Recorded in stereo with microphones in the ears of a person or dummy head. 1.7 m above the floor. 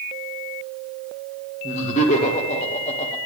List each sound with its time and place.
1.6 s laughter: 45° left (ahead or behind), 1.6 m